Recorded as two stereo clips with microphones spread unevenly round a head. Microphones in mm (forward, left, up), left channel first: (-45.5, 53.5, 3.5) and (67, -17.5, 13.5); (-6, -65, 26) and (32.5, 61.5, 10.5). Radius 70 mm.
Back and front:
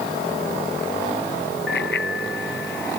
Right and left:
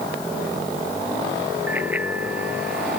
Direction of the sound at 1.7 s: 150° left.